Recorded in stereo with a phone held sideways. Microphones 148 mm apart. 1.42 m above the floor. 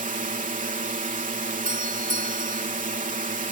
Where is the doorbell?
85° right.